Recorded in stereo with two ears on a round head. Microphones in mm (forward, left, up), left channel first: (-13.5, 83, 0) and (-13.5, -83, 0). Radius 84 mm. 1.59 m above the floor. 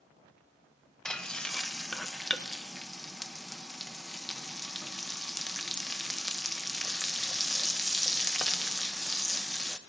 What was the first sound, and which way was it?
Frying, 5° left (ahead or behind).